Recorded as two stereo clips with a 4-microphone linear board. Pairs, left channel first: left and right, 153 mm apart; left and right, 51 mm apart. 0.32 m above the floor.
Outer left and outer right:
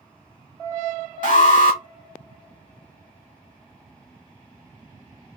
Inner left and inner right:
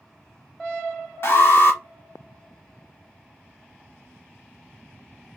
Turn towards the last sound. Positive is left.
turn(degrees=55)  # may be behind; listen again after turning